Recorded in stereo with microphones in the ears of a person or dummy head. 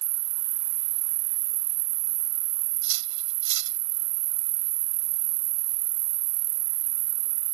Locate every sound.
0.0 s an insect: 85° right
2.8 s cutlery clinking: 65° right (ahead or behind)